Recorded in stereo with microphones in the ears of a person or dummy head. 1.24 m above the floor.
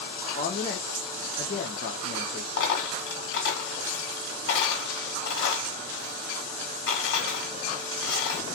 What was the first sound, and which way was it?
A woman speaking, 35° left (ahead or behind).